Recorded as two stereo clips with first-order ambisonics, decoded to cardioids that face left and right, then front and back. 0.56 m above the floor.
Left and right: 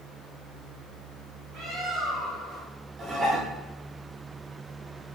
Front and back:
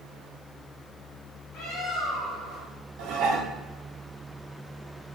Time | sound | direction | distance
1.5 | a bird | 35° right | 1.4 m
3.0 | dishes clattering | 155° right | 0.5 m